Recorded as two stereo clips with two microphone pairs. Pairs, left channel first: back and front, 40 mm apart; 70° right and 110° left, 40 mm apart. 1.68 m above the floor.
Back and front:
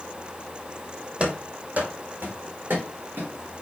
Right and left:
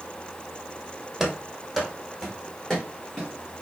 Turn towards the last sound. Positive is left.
turn(degrees=0)